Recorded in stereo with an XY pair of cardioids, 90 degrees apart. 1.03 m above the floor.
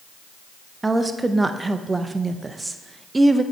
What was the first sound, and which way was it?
A woman speaking, 20° right.